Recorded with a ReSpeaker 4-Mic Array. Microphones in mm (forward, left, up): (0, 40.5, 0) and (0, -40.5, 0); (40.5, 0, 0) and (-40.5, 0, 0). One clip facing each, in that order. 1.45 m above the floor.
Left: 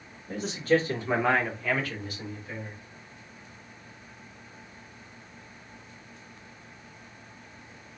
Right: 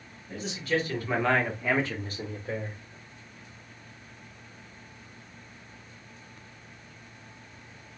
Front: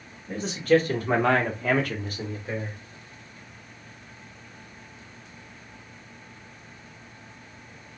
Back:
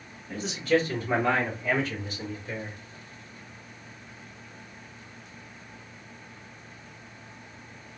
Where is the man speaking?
50° left, 2 m; by 2.8 s 60° right, 2.0 m.